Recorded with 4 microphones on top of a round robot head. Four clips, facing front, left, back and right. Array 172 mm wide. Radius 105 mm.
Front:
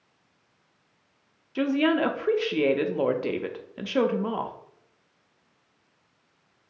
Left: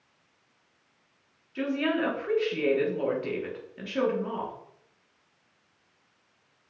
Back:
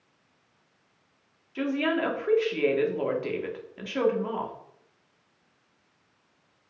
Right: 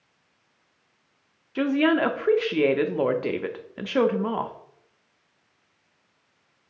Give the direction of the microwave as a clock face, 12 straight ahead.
I don't hear a microwave.